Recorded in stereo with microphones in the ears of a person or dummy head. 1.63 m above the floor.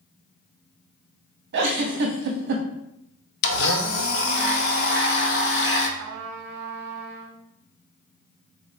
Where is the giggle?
60° right (ahead or behind), 0.6 m.